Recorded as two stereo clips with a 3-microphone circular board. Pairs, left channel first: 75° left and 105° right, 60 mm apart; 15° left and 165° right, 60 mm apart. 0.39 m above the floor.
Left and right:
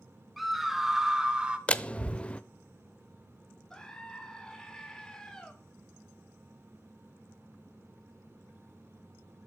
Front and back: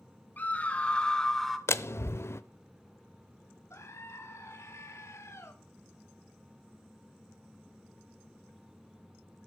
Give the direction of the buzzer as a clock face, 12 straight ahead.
I don't hear a buzzer.